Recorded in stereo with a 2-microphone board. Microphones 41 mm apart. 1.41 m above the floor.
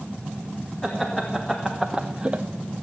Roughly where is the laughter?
Centre.